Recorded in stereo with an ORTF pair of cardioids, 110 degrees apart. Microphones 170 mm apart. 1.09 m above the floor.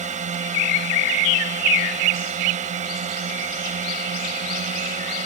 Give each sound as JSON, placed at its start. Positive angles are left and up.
{"t": 0.0, "sound": "a drone", "azimuth_deg": -45}